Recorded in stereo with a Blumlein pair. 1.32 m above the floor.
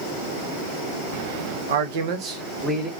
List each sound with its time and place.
1.7 s a man speaking: 65° right, 0.8 m; by 2.9 s 10° right, 1.2 m